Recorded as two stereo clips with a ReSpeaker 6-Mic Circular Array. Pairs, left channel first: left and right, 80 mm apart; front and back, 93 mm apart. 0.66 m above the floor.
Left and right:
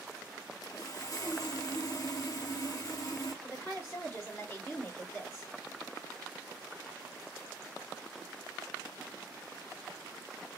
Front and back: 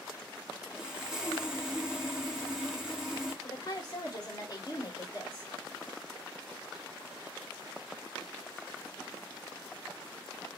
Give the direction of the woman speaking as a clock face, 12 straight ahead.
11 o'clock.